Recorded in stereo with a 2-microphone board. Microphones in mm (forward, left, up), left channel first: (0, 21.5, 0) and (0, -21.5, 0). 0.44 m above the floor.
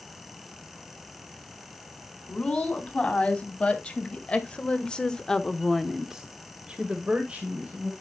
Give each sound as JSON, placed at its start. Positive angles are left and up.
{"t": 2.3, "sound": "a woman speaking", "side_deg": 30, "distance_m": 3.5}